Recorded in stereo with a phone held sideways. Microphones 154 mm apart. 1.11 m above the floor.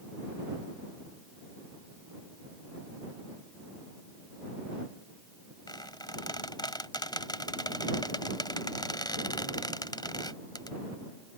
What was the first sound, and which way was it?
A squeak, 25° left (ahead or behind).